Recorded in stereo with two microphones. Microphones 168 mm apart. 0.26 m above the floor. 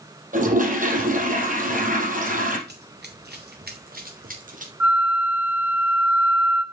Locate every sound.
0.3 s a toilet flushing: 55° right (ahead or behind), 4 m
2.7 s running footsteps: 75° right (ahead or behind), 1.9 m; by 4.7 s 50° right (ahead or behind), 4 m
4.8 s a flute: 10° right (ahead or behind), 1.8 m